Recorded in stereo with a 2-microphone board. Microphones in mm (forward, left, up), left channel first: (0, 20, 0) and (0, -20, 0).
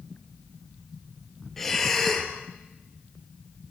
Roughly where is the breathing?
Centre.